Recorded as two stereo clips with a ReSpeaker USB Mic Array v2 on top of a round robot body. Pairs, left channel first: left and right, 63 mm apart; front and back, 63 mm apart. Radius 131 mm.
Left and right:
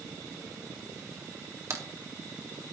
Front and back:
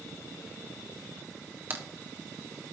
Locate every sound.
1.7 s a crack: 120° right, 1.7 m